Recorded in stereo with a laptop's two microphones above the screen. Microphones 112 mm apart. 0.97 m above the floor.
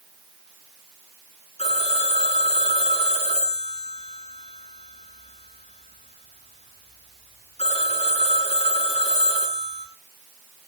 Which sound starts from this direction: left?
A phone ringing, at 1.6 s.